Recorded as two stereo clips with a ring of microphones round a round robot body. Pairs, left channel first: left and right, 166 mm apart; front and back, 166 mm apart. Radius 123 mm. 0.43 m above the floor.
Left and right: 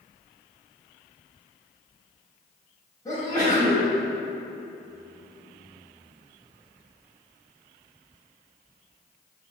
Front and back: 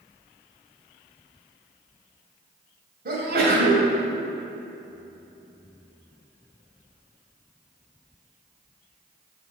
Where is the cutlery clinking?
I don't hear cutlery clinking.